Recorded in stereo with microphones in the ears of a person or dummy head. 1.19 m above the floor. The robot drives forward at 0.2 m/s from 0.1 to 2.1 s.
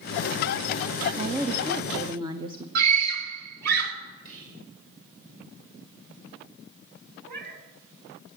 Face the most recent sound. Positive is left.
turn(degrees=-60)  # may be behind; listen again after turning